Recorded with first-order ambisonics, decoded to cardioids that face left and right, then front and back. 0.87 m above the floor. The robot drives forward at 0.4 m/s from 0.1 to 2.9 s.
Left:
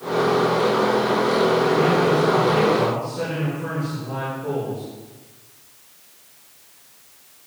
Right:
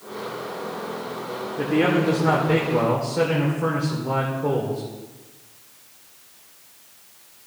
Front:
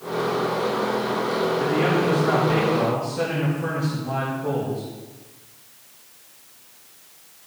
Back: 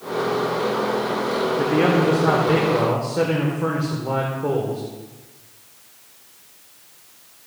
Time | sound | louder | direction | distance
1.6 | a man speaking | left 3 dB, back 5 dB | 130° right | 1.9 m